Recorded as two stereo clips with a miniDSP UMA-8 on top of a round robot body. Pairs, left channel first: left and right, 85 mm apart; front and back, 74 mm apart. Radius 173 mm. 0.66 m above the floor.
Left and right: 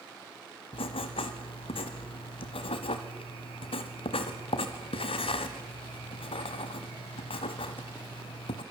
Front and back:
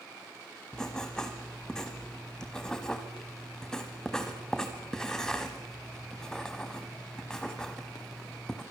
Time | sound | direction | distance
0.7 | writing | 80° left | 1.0 m